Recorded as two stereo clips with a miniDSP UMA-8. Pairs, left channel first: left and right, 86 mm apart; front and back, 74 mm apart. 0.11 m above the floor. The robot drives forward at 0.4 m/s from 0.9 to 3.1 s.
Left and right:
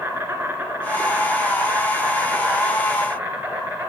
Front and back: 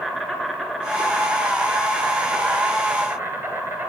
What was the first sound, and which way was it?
An insect, 105° right.